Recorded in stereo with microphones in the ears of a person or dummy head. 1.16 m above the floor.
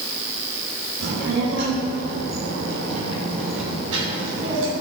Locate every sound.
1.0 s a child speaking: 70° right (ahead or behind), 4.5 m; by 4.7 s 85° right, 3 m